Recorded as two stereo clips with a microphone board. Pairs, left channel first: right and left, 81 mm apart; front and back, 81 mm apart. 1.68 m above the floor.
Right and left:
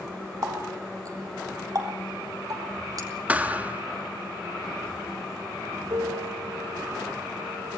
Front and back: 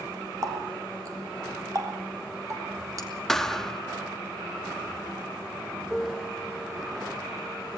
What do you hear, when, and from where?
0.4 s a running tap: 135° left, 3.5 m
3.3 s a thud: 75° left, 1.1 m
5.9 s a piano: 90° left, 2 m